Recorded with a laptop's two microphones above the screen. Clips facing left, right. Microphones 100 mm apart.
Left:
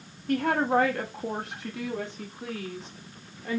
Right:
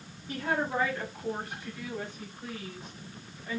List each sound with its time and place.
0.3 s a woman speaking: 60° left (ahead or behind), 1.2 m; by 3.6 s 85° left, 3 m